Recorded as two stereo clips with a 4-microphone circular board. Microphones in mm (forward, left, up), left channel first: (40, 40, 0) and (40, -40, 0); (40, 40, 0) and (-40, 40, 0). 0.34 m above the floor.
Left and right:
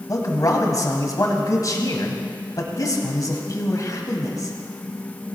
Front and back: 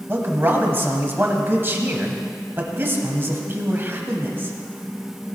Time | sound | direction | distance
0.1 | a man speaking | 120° left | 1.7 m